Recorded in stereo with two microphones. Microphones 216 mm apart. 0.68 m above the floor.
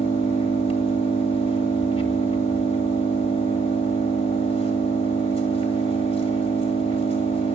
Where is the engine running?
30° left (ahead or behind), 1.8 m.